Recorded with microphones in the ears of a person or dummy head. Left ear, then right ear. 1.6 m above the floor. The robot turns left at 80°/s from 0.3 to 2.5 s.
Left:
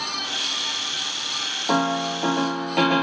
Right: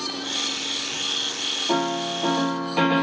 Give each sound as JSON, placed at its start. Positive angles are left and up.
{"t": 1.7, "sound": "a piano", "azimuth_deg": 70, "distance_m": 1.2}